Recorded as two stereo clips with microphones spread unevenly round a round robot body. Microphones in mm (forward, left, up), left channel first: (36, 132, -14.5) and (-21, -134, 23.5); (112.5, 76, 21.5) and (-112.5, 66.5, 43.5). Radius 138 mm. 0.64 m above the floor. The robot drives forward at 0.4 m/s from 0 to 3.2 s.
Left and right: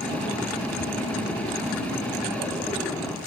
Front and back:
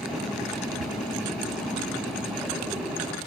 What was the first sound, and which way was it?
Ticking, 160° right.